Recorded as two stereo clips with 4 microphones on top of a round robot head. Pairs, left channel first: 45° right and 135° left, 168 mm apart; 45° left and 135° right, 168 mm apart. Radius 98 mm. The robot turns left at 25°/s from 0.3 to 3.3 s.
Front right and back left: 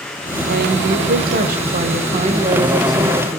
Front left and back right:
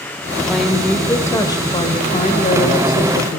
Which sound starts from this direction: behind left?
A woman speaking, at 0.5 s.